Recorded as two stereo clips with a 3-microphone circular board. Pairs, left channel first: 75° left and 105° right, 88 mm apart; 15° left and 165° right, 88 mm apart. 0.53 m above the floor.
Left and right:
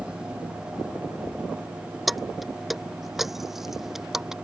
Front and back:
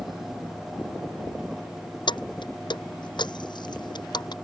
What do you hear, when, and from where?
2.1 s keys jangling: 15° right; by 4.3 s 20° right